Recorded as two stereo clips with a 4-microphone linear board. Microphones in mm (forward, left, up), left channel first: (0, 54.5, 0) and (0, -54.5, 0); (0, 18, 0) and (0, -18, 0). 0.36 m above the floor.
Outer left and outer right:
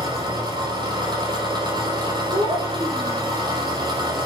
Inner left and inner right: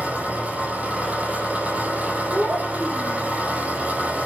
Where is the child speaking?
55° right (ahead or behind), 8 m.